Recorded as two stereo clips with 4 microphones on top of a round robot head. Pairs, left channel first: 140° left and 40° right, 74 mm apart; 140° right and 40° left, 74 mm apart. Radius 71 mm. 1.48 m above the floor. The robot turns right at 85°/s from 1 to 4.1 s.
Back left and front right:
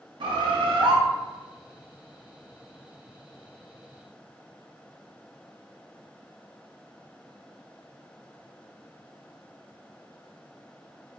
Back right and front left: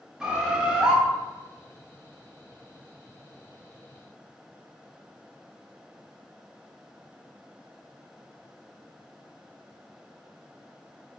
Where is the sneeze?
I don't hear a sneeze.